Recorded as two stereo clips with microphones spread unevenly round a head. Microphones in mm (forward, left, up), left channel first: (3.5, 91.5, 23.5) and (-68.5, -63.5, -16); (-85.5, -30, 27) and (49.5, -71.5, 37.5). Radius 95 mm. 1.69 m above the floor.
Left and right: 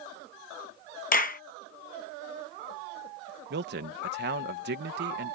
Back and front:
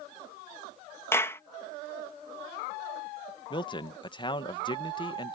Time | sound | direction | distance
1.1 | a clap | 85° left | ?
3.5 | a man speaking | 140° right | ?